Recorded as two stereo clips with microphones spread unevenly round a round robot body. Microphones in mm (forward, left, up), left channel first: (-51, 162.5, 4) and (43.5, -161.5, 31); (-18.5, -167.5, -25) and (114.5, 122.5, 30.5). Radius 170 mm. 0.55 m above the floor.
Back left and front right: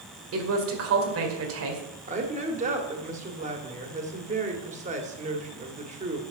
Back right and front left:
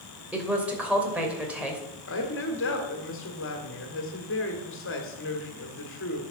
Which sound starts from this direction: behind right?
A woman speaking, at 2.1 s.